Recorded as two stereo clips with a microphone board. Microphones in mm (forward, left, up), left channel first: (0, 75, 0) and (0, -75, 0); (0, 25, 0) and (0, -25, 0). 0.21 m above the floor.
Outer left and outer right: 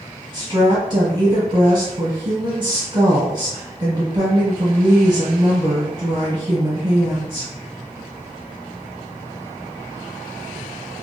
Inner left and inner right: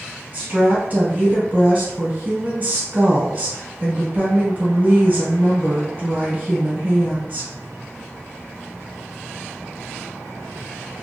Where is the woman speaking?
30° right (ahead or behind), 1.6 m.